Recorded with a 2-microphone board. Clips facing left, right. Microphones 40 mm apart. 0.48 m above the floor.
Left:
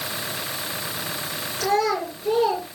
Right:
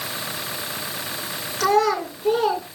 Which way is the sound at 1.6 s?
65° right (ahead or behind).